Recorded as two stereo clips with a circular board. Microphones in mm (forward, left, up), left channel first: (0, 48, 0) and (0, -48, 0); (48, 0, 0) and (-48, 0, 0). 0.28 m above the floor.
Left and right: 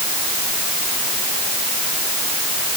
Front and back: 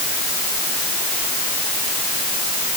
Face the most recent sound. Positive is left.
No sound to turn to.